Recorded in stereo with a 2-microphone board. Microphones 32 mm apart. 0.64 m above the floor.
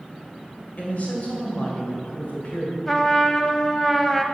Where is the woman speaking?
50° left (ahead or behind), 2.5 m.